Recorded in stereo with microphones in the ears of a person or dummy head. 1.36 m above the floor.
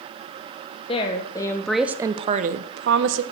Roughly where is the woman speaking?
Left.